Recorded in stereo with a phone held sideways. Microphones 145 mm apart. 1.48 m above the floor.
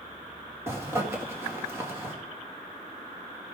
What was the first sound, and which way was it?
A zipper, 15° right (ahead or behind).